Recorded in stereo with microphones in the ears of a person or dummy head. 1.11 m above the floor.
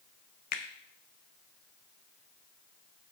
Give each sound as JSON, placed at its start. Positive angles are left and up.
{"t": 0.5, "sound": "a finger snap", "side_deg": 55, "distance_m": 0.8}